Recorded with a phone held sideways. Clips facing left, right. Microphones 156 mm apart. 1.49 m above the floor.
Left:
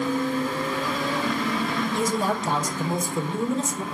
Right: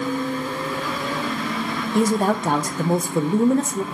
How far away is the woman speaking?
About 0.5 m.